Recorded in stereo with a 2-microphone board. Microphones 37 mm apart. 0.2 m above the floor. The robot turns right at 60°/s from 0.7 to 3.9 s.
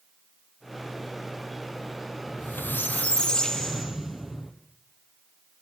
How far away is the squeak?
About 2 m.